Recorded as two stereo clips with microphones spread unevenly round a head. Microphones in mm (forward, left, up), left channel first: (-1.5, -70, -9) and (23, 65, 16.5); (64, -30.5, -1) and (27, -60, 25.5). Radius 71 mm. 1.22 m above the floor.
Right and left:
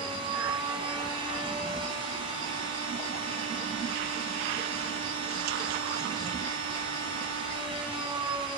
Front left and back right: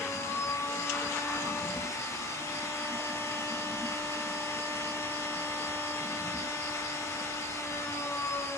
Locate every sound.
0.0 s a machine running: 25° left, 8 m